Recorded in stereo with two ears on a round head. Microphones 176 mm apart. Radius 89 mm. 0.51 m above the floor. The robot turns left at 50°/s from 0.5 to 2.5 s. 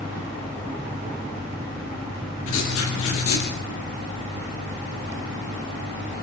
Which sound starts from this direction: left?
Writing, at 2.5 s.